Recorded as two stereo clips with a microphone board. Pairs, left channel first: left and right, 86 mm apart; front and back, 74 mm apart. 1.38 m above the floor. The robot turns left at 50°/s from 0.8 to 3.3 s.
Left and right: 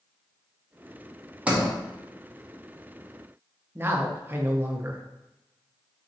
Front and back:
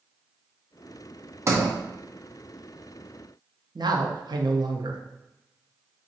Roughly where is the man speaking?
Behind right.